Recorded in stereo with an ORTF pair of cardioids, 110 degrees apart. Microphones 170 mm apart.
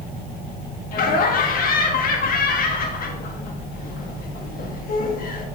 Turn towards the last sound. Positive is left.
turn(degrees=60)